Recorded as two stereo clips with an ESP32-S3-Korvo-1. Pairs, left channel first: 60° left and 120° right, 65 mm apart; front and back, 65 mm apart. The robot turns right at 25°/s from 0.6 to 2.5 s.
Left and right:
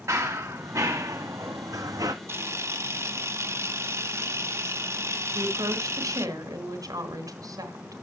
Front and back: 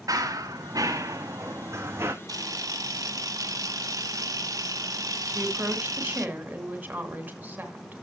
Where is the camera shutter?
165° right, 0.9 m; by 6.3 s 160° right, 0.9 m.